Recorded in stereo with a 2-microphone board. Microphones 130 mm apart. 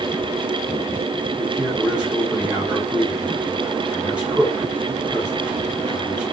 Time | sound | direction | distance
1.4 | a man speaking | 10° right (ahead or behind) | 7 m